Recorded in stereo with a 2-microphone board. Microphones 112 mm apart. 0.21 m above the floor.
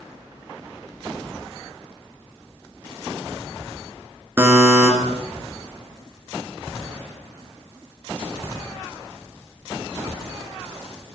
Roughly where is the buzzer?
Centre.